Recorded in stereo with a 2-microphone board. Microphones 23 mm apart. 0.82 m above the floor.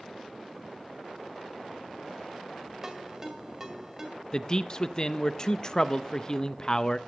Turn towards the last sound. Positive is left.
turn(degrees=30)  # may be behind; listen again after turning